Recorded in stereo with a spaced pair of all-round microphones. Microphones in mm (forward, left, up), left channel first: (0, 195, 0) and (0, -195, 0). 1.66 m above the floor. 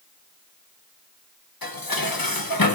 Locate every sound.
1.6 s dishes clattering: 60° left (ahead or behind), 1.3 m